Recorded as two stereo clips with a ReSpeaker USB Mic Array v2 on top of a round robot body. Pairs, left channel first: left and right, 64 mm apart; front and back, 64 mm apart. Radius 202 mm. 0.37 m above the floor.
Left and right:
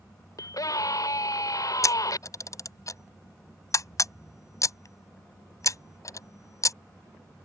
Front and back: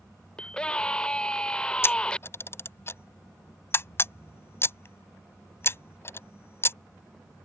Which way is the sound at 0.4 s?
75° left.